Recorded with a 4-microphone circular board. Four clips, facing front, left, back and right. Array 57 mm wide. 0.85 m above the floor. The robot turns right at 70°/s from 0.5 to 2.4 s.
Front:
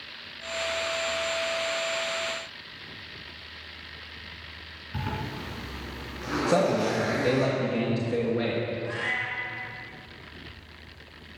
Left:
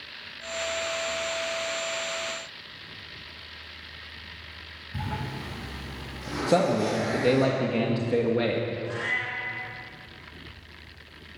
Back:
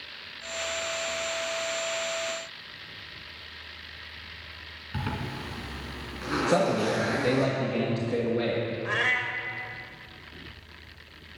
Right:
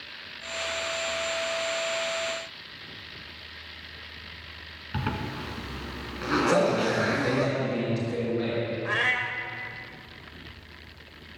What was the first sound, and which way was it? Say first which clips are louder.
A zipper: right 2 dB, even; 95° right.